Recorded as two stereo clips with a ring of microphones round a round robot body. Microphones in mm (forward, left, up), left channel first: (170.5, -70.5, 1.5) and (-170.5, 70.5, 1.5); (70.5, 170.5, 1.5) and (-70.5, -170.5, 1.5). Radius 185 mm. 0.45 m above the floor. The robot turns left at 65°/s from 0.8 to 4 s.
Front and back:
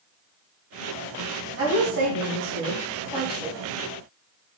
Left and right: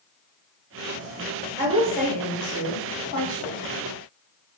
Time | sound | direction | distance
1.6 | a woman speaking | 170° right | 1.3 m